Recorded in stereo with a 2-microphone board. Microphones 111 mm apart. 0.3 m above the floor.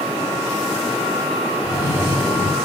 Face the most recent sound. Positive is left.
turn(degrees=-35)  # may be behind; listen again after turning